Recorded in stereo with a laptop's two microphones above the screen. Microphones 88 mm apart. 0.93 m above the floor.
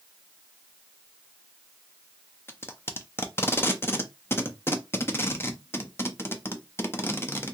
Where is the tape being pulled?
30° left (ahead or behind), 0.5 m.